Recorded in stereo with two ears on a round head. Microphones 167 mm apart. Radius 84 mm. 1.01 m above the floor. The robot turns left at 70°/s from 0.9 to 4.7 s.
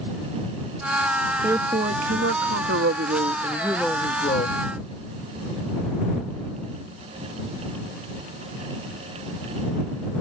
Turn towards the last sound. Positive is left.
turn(degrees=120)